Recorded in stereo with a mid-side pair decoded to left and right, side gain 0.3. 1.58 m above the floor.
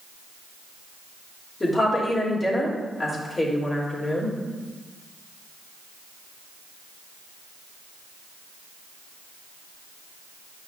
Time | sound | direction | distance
1.6 | a woman speaking | 35° left | 3.5 m